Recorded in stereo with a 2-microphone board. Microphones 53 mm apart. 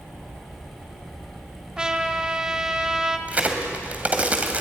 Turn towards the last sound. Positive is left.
turn(degrees=-25)  # may be behind; listen again after turning